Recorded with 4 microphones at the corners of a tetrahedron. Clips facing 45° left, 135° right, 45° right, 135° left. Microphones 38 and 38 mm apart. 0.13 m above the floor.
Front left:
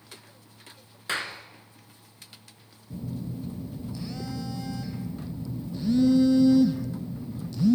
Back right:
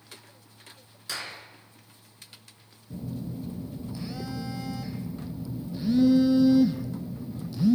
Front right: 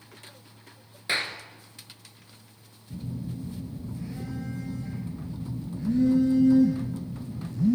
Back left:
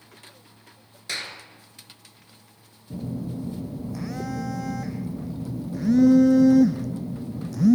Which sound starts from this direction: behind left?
A phone buzzing, at 2.9 s.